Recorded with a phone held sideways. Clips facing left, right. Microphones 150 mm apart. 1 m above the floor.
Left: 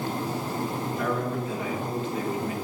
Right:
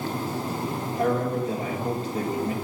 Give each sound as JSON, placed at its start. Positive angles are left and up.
{"t": 1.0, "sound": "a man speaking", "side_deg": -35, "distance_m": 1.5}